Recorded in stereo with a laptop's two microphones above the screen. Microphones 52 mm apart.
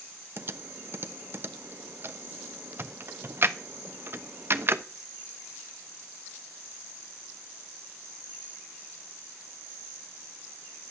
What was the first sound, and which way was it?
Typing on a keyboard, 45° right (ahead or behind).